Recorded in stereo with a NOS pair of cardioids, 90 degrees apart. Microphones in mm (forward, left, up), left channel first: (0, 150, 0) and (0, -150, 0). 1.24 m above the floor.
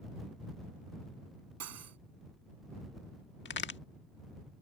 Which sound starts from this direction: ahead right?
Cutlery clinking, at 1.6 s.